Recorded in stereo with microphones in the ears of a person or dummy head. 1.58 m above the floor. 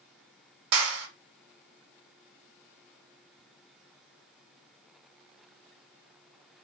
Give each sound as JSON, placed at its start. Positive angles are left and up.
{"t": 0.7, "sound": "a clap", "side_deg": -70, "distance_m": 1.3}